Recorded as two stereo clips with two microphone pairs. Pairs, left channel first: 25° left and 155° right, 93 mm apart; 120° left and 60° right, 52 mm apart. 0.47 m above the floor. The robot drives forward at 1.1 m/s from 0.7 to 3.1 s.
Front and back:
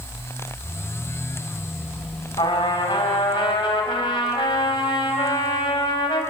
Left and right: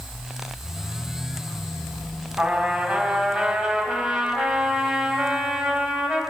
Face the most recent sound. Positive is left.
turn(degrees=15)